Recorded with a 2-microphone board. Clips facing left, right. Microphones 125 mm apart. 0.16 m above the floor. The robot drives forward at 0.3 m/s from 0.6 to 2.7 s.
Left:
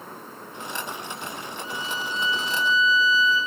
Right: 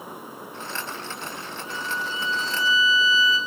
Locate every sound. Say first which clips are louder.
1.6 s a violin: right 1 dB; 60° right (ahead or behind), 2 m; by 3.4 s 65° right (ahead or behind), 2 m